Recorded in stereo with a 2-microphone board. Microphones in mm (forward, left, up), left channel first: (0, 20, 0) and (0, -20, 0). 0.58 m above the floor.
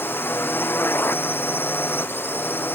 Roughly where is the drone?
Left.